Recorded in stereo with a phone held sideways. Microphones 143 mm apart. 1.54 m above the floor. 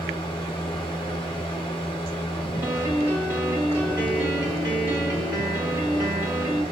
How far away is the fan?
About 0.9 m.